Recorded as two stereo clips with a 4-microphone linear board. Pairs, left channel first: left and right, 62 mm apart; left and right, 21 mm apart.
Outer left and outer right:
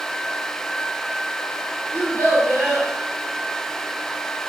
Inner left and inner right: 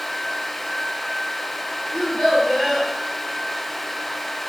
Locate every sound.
1.9 s a child speaking: 35° left (ahead or behind), 1.5 m